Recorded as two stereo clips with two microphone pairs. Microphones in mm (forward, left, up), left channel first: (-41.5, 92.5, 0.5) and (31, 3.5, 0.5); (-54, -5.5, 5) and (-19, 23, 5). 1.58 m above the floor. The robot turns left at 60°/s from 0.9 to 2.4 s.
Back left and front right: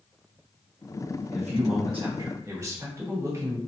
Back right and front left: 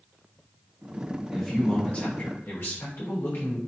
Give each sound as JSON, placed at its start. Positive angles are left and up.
{"t": 1.3, "sound": "a man speaking", "azimuth_deg": -50, "distance_m": 1.1}